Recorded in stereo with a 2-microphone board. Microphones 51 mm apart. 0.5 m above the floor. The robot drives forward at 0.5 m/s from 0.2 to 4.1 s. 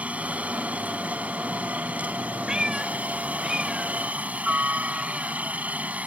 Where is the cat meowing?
15° right (ahead or behind); by 5.4 s 5° right (ahead or behind).